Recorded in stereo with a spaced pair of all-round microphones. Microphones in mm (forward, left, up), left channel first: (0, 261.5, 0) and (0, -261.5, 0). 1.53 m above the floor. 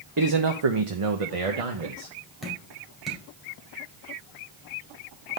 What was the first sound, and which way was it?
A man speaking, 35° right (ahead or behind).